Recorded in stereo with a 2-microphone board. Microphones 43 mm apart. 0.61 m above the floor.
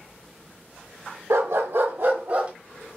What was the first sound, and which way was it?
A dog barking, 75° right (ahead or behind).